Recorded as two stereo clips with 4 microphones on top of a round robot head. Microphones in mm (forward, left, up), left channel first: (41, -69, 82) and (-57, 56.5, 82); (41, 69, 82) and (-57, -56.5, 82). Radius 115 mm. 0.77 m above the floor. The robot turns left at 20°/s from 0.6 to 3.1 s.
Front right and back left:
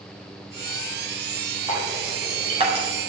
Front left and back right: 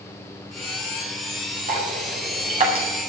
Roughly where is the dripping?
Behind.